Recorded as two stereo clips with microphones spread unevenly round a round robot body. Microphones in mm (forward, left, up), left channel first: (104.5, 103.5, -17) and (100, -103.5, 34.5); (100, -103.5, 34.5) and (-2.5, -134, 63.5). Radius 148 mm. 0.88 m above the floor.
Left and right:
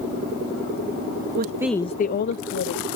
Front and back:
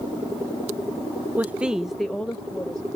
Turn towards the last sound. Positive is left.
turn(degrees=95)